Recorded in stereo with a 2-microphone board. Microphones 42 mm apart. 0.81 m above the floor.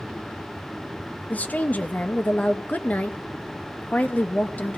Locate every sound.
1.3 s a woman speaking: 40° left (ahead or behind), 0.6 m